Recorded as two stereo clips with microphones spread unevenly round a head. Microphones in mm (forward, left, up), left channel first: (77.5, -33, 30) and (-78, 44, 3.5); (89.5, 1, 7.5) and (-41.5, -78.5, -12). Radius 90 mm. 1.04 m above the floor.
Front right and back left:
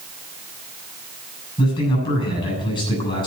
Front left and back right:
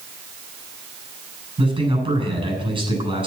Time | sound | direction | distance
1.6 | a man speaking | 90° right | 7.5 m